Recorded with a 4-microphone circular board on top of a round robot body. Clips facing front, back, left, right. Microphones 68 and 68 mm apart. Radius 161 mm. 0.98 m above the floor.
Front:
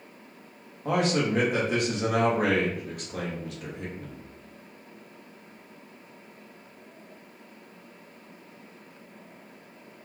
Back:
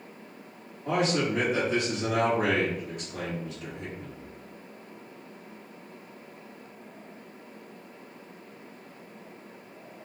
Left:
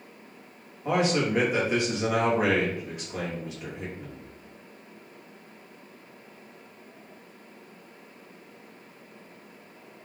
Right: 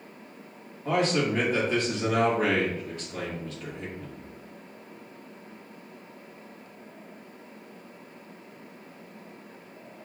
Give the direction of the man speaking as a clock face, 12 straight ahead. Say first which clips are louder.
Front 1 dB, even; 11 o'clock.